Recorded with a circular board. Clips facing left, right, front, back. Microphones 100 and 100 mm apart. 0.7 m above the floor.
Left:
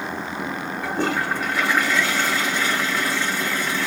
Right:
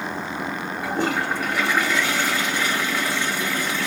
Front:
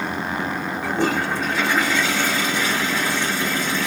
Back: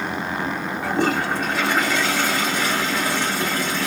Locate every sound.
0.8 s a toilet flushing: 165° right, 2 m